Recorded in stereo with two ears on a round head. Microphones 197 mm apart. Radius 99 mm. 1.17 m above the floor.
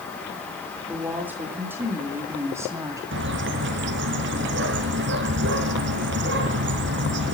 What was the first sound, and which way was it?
A woman speaking, 10° right (ahead or behind).